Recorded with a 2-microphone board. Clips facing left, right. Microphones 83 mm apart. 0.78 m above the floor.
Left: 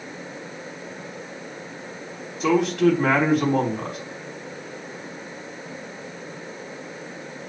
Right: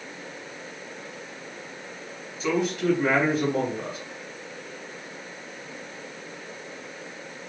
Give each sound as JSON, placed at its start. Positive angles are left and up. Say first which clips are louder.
{"t": 2.4, "sound": "a man speaking", "louder": "left 6 dB", "side_deg": 65, "distance_m": 4.5}